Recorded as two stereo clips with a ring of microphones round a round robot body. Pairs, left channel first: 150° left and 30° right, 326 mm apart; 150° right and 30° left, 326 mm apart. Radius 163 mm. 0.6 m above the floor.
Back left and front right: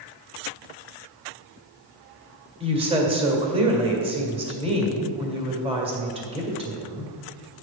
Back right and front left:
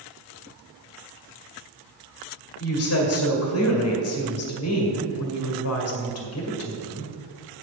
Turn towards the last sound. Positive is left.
turn(degrees=-105)